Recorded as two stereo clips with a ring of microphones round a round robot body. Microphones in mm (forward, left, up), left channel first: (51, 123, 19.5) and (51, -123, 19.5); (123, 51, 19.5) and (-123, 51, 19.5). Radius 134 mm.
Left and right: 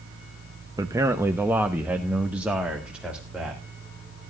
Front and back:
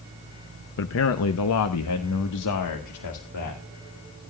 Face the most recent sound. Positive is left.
turn(degrees=-5)